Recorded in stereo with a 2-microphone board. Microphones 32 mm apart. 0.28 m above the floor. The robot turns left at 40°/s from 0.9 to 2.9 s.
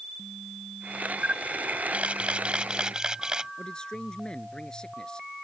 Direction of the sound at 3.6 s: 20° left (ahead or behind).